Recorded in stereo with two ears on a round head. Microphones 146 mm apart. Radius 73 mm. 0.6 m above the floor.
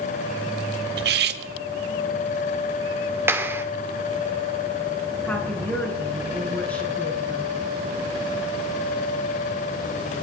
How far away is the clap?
About 1.1 m.